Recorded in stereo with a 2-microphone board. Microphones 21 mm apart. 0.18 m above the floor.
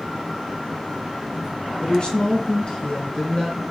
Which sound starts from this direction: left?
A woman speaking, at 1.8 s.